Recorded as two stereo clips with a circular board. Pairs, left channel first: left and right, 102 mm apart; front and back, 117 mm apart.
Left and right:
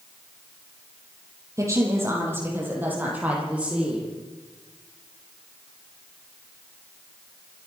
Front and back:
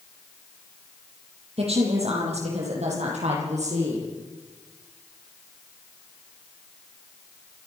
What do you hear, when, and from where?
1.6 s a woman speaking: 150° right, 7.5 m; by 4.1 s 170° right, 9 m